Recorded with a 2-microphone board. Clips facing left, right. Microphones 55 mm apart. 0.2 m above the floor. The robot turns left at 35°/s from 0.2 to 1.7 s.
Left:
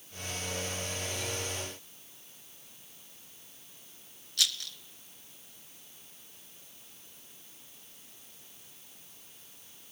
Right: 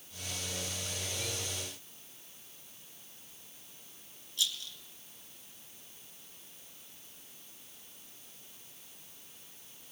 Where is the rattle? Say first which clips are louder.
Left 3 dB; 75° left (ahead or behind), 0.8 m.